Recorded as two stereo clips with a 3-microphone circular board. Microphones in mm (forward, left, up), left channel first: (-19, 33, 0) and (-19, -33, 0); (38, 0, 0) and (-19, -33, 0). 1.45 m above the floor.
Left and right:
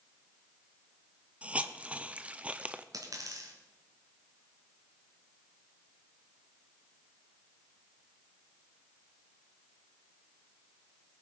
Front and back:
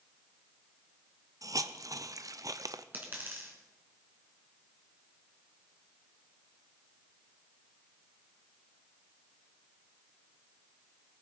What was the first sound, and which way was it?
A hiss, 155° right.